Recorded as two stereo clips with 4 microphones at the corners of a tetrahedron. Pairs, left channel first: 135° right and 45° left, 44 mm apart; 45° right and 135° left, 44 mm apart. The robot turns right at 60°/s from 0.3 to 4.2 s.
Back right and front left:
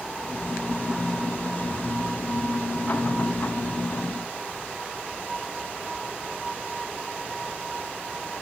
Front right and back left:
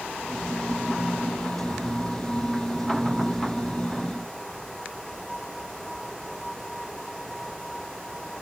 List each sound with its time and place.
Only background noise.